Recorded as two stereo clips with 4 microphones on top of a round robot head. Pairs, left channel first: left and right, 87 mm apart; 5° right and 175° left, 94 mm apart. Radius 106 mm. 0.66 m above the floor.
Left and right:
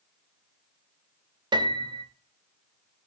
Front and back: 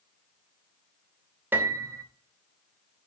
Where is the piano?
115° right, 1.0 m.